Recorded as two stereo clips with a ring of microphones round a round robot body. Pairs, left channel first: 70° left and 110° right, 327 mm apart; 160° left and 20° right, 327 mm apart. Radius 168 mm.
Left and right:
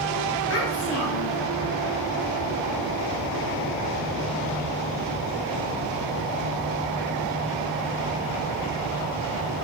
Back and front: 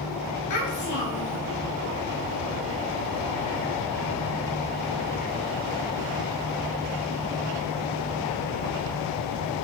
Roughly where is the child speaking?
Behind left.